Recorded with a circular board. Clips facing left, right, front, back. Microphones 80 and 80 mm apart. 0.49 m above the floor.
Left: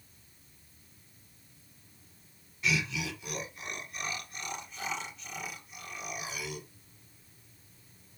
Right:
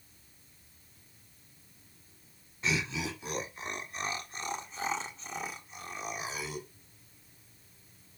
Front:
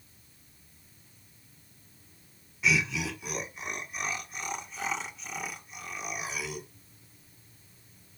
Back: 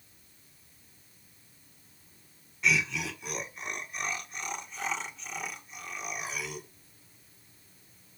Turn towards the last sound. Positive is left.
turn(degrees=-80)